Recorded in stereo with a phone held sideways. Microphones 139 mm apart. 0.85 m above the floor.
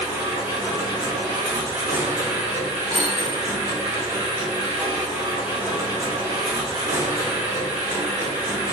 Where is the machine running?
20° right (ahead or behind), 1.4 m.